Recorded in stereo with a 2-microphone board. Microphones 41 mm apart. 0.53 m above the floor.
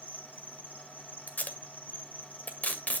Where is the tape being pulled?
40° left (ahead or behind), 1.8 m.